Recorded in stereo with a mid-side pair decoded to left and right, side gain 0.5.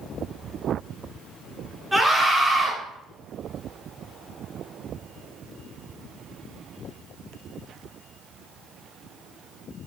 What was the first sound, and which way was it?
A scream, 5° right.